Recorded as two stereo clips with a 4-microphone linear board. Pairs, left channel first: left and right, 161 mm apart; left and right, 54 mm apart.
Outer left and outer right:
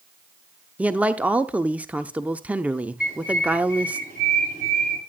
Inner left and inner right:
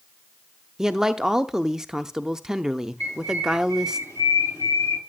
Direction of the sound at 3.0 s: 70° left (ahead or behind).